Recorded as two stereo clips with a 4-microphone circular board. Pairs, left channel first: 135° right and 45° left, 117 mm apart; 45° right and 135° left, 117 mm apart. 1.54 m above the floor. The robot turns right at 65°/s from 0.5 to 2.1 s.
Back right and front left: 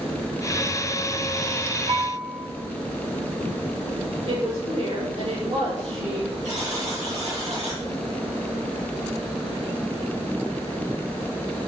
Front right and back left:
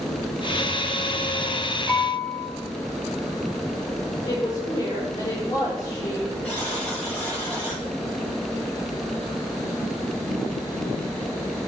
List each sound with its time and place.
1.9 s dishes clattering: 35° left, 5 m; by 2.5 s 50° left, 5 m
4.2 s a woman speaking: 5° left, 5 m
6.4 s a buzzer: 35° left, 6 m